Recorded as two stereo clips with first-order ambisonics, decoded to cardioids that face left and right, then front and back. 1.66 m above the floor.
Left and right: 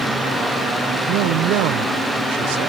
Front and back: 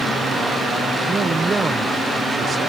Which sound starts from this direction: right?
A man speaking, at 1.1 s.